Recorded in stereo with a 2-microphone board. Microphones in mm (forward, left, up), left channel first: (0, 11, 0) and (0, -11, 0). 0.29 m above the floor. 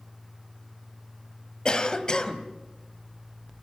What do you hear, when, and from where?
1.6 s a cough: 35° left (ahead or behind), 1.8 m